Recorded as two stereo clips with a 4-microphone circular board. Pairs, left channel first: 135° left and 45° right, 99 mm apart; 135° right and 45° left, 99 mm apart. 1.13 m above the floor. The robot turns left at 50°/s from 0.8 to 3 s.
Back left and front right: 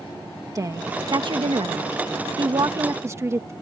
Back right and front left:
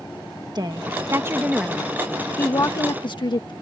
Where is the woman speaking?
5° left; by 3.5 s 105° right.